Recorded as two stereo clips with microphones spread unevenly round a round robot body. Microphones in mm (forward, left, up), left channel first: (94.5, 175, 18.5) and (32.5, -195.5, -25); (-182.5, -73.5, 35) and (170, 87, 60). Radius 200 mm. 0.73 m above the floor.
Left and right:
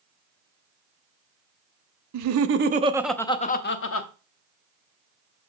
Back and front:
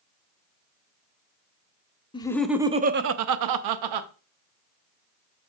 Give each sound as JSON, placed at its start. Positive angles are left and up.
{"t": 2.1, "sound": "laughter", "azimuth_deg": -85, "distance_m": 0.7}